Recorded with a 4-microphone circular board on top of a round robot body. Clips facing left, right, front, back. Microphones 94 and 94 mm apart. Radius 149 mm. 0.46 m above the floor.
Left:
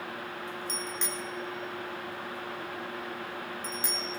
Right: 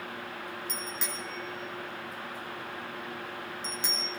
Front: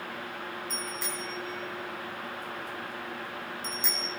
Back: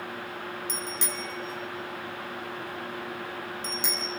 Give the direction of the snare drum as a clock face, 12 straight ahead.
I don't hear a snare drum.